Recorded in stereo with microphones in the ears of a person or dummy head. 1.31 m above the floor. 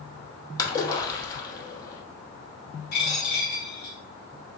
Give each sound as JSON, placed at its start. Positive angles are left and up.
{"t": 0.6, "sound": "a splash", "side_deg": 25, "distance_m": 0.8}
{"t": 2.9, "sound": "a dropped coin", "side_deg": 55, "distance_m": 1.6}